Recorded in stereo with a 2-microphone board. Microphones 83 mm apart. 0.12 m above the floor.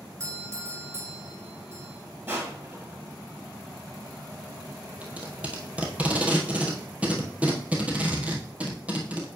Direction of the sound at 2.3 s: 30° right (ahead or behind).